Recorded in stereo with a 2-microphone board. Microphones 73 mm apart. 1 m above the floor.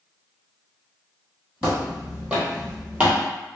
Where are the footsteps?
5° right (ahead or behind), 1.4 m; by 3.2 s 15° right (ahead or behind), 1.0 m.